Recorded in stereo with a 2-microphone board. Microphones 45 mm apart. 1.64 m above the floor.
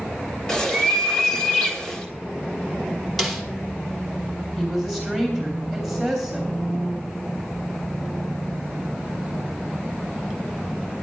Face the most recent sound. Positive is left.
turn(degrees=5)  # may be behind; listen again after turning